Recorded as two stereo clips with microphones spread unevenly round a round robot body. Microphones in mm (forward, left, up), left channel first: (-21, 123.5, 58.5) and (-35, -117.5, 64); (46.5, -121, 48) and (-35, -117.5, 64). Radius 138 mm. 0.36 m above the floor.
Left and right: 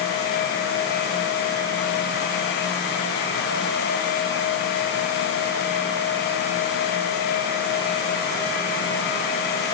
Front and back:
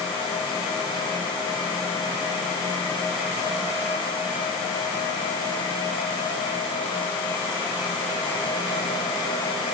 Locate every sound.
Only background noise.